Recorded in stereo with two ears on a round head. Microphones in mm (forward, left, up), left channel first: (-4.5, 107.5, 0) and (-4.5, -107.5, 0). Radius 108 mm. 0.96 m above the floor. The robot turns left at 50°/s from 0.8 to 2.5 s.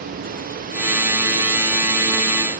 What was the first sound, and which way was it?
Only background noise.